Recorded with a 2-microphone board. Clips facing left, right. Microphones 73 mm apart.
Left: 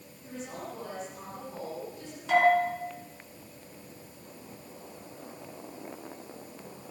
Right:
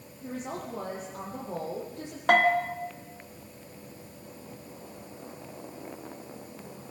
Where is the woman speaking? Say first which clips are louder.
Right 4 dB; 55° right (ahead or behind), 8 m; by 2.2 s 70° right (ahead or behind), 10 m.